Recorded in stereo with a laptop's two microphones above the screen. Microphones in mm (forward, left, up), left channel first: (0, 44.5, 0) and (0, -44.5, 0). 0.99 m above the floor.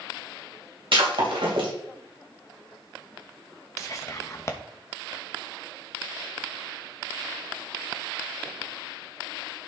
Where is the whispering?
35° left (ahead or behind), 1.1 m.